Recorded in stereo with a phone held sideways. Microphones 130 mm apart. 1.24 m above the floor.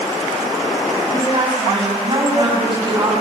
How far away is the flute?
No flute in this recording.